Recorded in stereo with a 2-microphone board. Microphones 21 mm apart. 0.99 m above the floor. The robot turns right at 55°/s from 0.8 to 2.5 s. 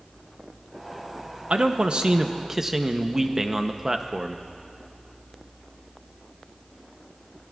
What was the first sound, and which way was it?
A man speaking, 80° right.